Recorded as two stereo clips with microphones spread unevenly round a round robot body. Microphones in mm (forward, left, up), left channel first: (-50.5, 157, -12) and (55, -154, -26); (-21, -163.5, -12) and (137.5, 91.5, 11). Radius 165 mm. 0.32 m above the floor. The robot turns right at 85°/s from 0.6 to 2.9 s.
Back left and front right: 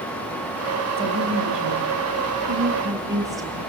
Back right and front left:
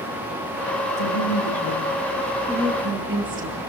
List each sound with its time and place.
1.0 s a woman speaking: 155° right, 8.5 m; by 3.6 s 10° left, 8.5 m